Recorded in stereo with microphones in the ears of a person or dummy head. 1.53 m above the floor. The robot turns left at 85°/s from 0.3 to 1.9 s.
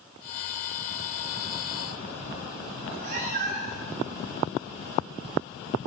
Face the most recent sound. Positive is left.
turn(degrees=-40)  # may be behind; listen again after turning